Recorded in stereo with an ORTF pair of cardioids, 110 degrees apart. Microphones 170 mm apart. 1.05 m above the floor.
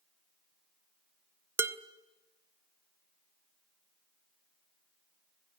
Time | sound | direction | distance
1.6 | dishes clattering | 15° right | 0.9 m